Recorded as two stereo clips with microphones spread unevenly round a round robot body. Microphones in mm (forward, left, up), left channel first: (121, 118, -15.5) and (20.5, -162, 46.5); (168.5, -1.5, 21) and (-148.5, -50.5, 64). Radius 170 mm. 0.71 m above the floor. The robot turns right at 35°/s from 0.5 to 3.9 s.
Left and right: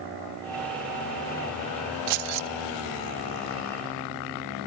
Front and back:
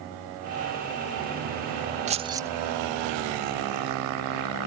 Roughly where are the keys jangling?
Right.